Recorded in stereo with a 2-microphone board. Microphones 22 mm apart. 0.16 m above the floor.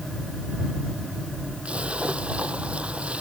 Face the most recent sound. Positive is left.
turn(degrees=-75)  # may be behind; listen again after turning